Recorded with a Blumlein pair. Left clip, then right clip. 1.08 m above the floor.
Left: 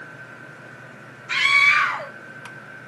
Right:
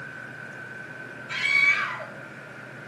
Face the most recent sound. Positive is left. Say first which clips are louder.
# left 5 dB
turn(degrees=30)